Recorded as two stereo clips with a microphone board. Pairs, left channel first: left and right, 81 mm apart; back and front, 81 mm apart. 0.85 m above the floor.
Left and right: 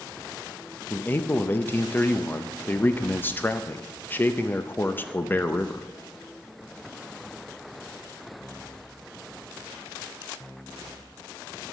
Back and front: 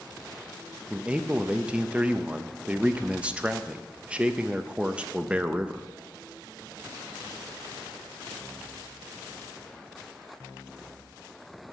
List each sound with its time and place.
0.9 s a man speaking: 60° left, 0.5 m